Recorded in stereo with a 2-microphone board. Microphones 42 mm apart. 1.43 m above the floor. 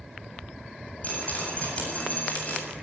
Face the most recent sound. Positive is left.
turn(degrees=35)  # may be behind; listen again after turning